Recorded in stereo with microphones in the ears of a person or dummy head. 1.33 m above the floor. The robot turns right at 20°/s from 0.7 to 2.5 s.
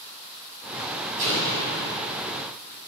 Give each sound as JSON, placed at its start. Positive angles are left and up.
{"t": 1.2, "sound": "an explosion", "side_deg": -55, "distance_m": 1.8}